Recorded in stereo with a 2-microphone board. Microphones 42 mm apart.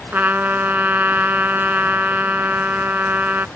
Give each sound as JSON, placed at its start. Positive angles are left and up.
{"t": 0.1, "sound": "a trumpet", "side_deg": -50}